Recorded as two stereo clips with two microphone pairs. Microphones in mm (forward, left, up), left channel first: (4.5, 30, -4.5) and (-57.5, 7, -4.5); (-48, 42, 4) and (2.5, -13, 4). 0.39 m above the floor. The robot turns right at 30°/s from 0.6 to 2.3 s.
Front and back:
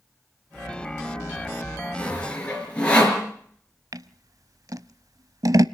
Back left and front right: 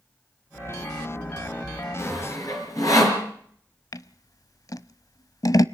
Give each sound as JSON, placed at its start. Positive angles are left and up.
{"t": 2.0, "sound": "sawing", "azimuth_deg": 85, "distance_m": 5.0}
{"t": 3.9, "sound": "scissors", "azimuth_deg": 170, "distance_m": 0.5}